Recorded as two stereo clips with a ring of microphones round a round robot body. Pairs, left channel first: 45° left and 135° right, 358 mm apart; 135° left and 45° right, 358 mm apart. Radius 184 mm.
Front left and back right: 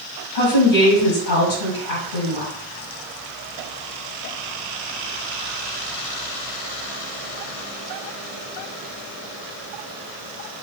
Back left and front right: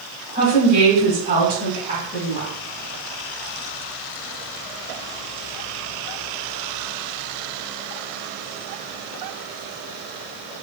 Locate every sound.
0.3 s a woman speaking: 25° left, 1.7 m